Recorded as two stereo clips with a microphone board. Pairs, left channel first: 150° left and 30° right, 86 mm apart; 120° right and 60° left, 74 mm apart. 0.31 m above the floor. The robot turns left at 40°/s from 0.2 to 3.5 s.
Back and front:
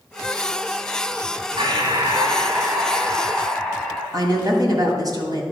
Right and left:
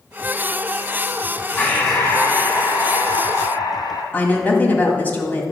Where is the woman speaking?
55° right, 1.8 m.